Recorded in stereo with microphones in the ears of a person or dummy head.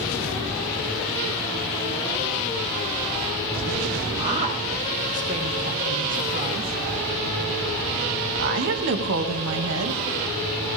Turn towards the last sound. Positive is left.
turn(degrees=-75)  # may be behind; listen again after turning